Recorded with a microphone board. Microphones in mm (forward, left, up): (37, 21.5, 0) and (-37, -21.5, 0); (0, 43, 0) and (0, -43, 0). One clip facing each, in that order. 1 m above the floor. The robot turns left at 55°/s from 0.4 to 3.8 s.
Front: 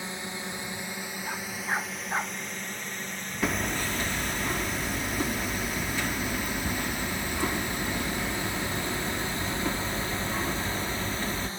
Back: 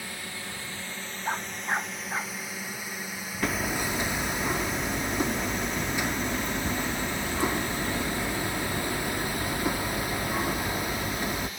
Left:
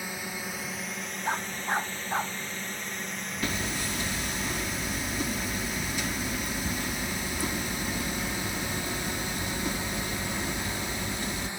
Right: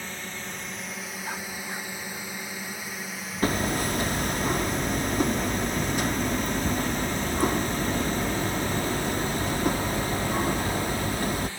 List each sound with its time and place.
0.0 s a drone: 30° left; by 11.6 s 40° left
1.2 s a dog barking: 155° left; by 2.4 s 95° left
3.4 s hammering: 60° right; by 11.5 s 80° right